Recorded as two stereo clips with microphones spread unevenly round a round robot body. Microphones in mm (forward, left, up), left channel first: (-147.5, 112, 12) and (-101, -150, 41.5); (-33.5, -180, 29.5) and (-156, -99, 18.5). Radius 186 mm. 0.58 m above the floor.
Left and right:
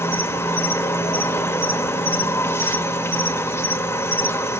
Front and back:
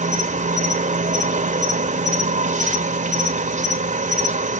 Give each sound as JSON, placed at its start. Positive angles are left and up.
{"t": 0.0, "sound": "an insect", "azimuth_deg": 180, "distance_m": 1.3}